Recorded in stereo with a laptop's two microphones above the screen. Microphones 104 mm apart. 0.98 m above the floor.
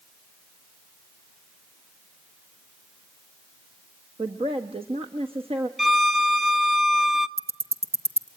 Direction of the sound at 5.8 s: Centre (ahead or behind).